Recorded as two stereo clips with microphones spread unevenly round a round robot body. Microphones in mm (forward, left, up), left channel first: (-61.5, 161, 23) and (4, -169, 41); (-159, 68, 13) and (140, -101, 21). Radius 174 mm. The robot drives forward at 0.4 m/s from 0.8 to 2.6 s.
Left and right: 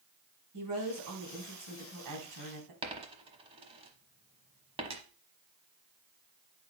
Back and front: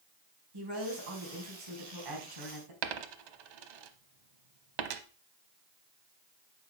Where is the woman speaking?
40° right, 4.5 m; by 2.7 s 45° right, 4 m.